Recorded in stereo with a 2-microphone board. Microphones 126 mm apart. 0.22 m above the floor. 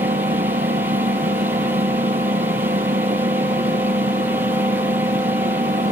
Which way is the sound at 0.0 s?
85° right.